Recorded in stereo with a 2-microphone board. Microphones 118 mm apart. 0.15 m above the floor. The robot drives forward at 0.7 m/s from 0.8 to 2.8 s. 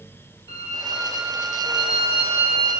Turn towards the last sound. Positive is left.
turn(degrees=55)  # may be behind; listen again after turning